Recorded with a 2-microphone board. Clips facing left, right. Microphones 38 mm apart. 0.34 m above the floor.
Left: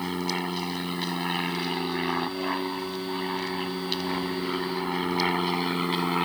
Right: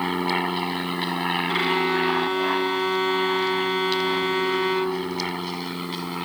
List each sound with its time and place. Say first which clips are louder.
0.0 s an aircraft: right 6 dB; 30° right (ahead or behind); by 6.3 s 20° left (ahead or behind)
1.5 s a violin: right 7 dB; 65° right (ahead or behind)